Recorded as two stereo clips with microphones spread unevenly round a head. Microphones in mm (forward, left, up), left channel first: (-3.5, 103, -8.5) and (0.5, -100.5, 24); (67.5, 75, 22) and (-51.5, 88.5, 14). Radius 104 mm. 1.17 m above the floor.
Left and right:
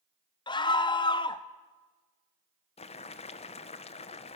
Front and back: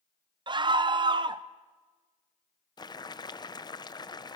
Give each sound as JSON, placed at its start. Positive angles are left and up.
{"t": 0.5, "sound": "a scream", "azimuth_deg": 145, "distance_m": 0.8}
{"t": 2.8, "sound": "boiling", "azimuth_deg": 45, "distance_m": 1.0}